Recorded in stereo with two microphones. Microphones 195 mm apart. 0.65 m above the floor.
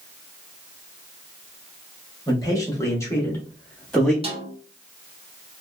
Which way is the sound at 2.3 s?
20° left (ahead or behind).